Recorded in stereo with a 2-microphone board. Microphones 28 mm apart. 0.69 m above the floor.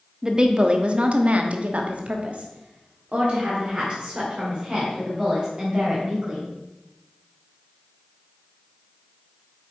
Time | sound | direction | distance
0.2 | a woman speaking | 25° right (ahead or behind) | 1.0 m